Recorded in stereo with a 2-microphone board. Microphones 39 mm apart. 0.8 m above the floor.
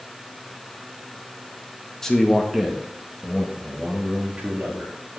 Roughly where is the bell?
I don't hear a bell.